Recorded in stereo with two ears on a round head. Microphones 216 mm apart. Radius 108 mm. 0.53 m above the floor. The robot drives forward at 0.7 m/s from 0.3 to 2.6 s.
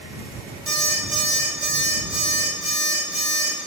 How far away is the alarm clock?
About 1.3 m.